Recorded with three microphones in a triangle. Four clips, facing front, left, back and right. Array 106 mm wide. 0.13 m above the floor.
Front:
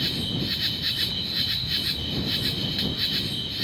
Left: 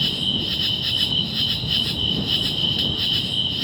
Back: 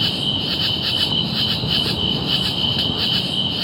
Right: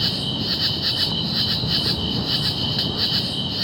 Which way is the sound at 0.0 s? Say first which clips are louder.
Right 1 dB, back 5 dB; 160° right.